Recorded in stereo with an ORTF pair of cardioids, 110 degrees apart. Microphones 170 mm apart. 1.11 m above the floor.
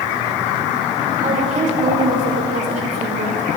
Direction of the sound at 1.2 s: 50° right.